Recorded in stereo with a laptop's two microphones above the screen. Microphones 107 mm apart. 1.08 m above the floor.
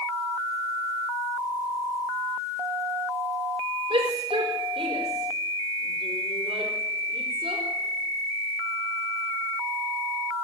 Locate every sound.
3.9 s a shout: 55° right (ahead or behind), 4.5 m